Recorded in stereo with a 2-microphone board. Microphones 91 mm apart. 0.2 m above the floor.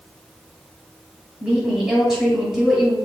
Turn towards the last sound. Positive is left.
turn(degrees=-5)  # may be behind; listen again after turning